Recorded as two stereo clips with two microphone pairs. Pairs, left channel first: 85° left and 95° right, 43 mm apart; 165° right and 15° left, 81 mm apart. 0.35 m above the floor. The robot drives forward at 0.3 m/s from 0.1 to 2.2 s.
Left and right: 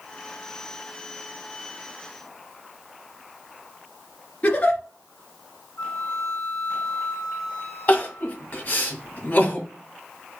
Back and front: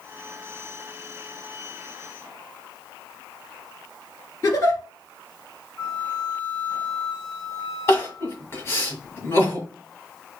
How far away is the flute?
About 2.5 m.